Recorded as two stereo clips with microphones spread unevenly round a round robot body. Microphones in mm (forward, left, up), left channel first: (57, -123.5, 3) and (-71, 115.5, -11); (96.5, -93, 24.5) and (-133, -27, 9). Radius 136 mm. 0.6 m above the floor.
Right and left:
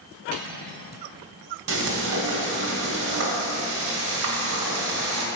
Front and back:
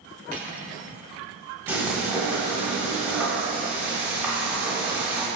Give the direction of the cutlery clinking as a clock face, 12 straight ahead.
8 o'clock.